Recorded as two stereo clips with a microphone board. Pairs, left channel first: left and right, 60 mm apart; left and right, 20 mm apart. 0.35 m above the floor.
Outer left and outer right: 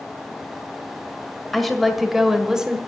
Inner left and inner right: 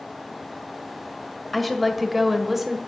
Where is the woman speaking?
Centre (ahead or behind), 1.8 m; by 2.8 s 10° right (ahead or behind), 1.5 m.